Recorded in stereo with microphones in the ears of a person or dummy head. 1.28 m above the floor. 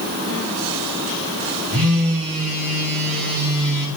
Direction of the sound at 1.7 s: 85° right.